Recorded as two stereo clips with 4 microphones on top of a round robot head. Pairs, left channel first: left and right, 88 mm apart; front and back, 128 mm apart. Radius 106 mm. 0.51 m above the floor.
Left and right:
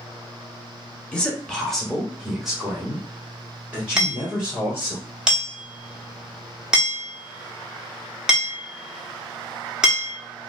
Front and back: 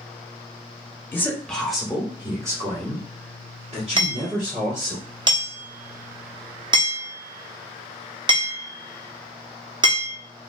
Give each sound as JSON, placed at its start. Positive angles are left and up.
{"t": 1.1, "sound": "a man speaking", "azimuth_deg": 35, "distance_m": 1.1}
{"t": 4.0, "sound": "hammering", "azimuth_deg": -165, "distance_m": 1.0}